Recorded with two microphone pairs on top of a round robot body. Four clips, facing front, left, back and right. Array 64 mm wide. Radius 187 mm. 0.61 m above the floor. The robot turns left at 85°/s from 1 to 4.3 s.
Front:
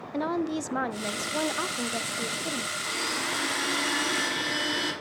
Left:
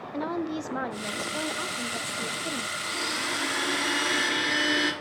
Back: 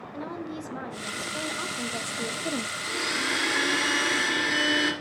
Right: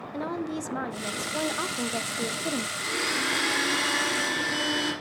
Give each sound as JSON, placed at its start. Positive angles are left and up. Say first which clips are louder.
{"t": 0.1, "sound": "a woman speaking", "louder": "left 1 dB, front 8 dB", "azimuth_deg": -5, "distance_m": 0.7}
{"t": 2.8, "sound": "a blender", "louder": "right 2 dB, back 2 dB", "azimuth_deg": -95, "distance_m": 3.5}